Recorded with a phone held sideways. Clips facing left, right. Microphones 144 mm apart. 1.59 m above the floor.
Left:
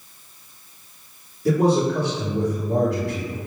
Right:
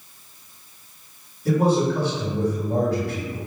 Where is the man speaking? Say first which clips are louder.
Left 1 dB; 80° left, 1.9 m.